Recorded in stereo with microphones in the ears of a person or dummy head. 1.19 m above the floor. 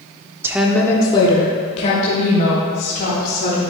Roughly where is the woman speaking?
Centre.